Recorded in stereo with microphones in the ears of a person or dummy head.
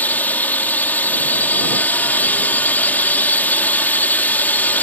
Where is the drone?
10° left (ahead or behind).